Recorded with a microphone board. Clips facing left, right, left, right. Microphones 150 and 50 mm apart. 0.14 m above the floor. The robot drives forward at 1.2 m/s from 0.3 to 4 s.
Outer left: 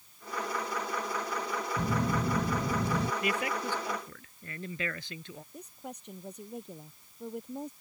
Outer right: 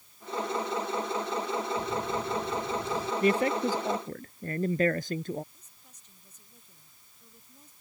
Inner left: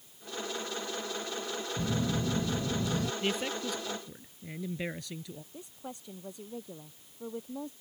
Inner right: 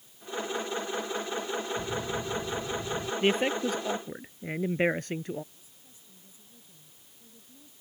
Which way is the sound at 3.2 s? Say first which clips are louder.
Outer right 7 dB, inner right 7 dB; 35° right (ahead or behind).